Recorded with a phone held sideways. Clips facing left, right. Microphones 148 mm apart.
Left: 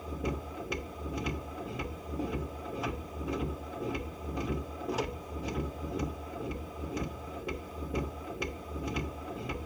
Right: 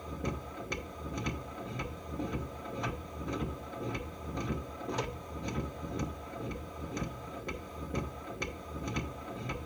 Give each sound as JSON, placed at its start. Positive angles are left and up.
{"t": 0.0, "sound": "a machine running", "side_deg": 5, "distance_m": 1.0}